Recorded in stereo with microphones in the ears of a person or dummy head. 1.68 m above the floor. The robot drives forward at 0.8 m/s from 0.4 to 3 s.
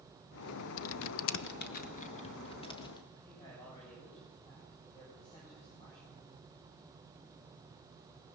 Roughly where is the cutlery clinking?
No cutlery clinking in this recording.